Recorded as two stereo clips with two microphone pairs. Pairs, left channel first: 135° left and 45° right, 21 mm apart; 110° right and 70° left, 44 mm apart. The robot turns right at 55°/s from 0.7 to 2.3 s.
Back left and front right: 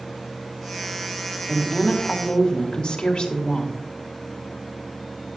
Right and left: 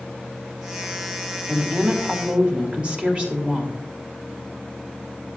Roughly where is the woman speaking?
Left.